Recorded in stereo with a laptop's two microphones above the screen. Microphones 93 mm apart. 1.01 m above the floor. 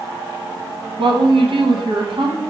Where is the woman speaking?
65° right (ahead or behind), 0.7 m.